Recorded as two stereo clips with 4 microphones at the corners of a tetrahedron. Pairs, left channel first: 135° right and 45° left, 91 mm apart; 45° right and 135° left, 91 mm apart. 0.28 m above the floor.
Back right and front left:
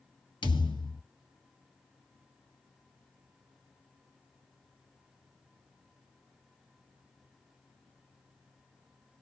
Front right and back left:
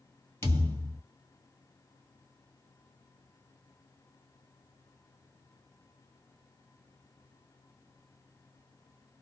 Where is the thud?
105° right, 1.6 m.